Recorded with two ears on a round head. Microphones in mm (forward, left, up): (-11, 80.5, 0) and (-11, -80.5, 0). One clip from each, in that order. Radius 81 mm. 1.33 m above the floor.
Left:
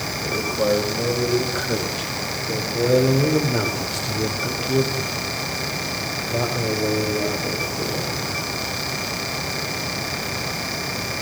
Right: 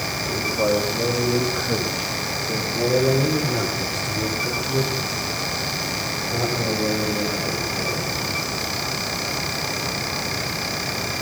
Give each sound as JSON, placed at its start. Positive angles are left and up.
{"t": 0.2, "sound": "a man speaking", "side_deg": 65, "distance_m": 5.0}